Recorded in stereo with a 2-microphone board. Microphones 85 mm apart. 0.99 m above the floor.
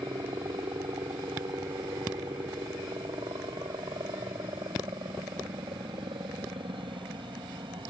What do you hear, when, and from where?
0.0 s a helicopter: 55° right (ahead or behind); by 7.9 s 70° right (ahead or behind)